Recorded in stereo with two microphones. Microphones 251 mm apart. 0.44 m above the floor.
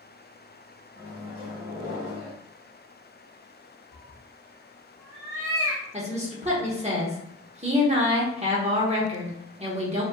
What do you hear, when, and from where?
0.9 s a microwave: 20° right (ahead or behind), 1.7 m
3.9 s a cat meowing: 70° right (ahead or behind), 0.9 m
5.9 s a woman speaking: 25° right (ahead or behind), 0.8 m